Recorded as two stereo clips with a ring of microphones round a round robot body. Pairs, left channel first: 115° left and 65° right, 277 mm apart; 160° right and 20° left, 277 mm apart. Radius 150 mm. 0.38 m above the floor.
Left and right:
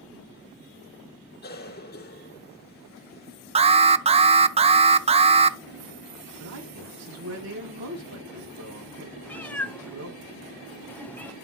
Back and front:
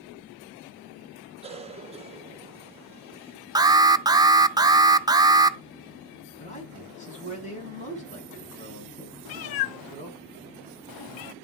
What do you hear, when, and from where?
1.4 s a cough: 80° left, 1.7 m
3.5 s an alarm: 35° right, 0.6 m
6.4 s a man speaking: 95° right, 4 m
9.2 s a cat meowing: 165° right, 0.6 m